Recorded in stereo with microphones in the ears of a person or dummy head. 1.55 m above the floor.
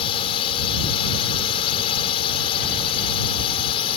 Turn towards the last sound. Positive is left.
turn(degrees=30)  # may be behind; listen again after turning